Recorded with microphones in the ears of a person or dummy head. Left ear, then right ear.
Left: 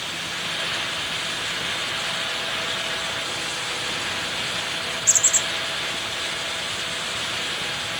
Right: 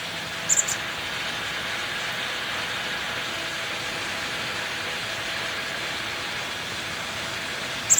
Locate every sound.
Only background noise.